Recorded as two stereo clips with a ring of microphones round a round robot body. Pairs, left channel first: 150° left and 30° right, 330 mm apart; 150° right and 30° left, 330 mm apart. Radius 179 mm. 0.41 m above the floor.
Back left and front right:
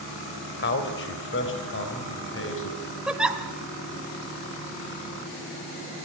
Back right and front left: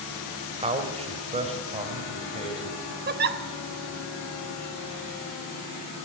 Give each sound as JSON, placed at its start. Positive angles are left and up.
{"t": 0.6, "sound": "a man speaking", "azimuth_deg": 100, "distance_m": 2.5}
{"t": 3.1, "sound": "a giggle", "azimuth_deg": 55, "distance_m": 1.2}